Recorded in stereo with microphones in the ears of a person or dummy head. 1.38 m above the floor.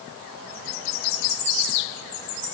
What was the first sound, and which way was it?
Only background noise.